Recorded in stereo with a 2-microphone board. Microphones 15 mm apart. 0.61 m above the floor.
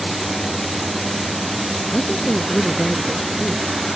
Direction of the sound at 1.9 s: 25° left (ahead or behind).